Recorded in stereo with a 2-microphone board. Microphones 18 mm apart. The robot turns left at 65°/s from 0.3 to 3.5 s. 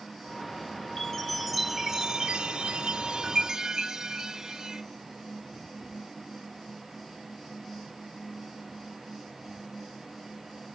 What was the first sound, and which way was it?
A chime, 30° left.